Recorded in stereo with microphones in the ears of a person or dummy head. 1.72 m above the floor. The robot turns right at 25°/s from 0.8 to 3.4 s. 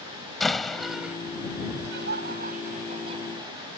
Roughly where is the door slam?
Centre.